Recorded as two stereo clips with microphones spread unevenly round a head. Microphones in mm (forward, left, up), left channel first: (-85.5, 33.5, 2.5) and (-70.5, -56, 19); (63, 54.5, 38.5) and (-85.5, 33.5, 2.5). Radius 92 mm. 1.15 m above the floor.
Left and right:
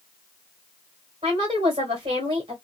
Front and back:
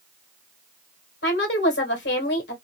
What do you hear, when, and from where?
1.2 s a woman speaking: 20° right, 1.4 m